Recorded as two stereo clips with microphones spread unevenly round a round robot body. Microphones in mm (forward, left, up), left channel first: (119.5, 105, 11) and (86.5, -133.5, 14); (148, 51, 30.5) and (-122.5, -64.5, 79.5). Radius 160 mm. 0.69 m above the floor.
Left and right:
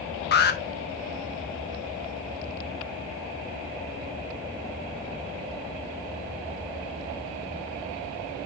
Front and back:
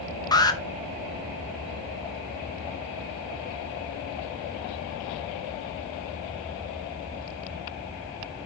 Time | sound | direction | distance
0.3 | an alarm | 80° left | 1.1 m